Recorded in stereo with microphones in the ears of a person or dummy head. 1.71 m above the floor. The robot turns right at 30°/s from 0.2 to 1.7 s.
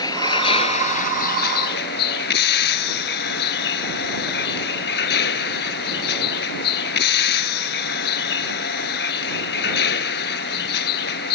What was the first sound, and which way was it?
A vehicle, 20° left.